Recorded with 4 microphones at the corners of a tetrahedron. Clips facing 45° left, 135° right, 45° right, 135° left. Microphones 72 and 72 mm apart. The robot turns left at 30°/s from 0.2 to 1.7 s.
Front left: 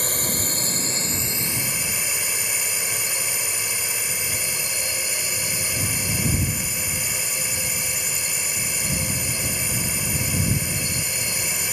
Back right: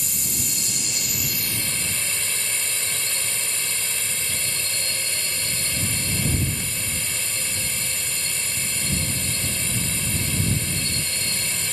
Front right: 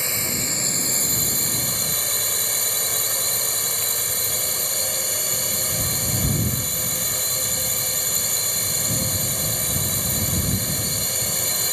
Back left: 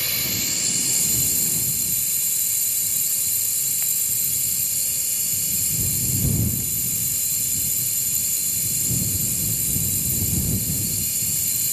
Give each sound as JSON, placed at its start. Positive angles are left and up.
{"t": 0.0, "sound": "a drone", "azimuth_deg": 15}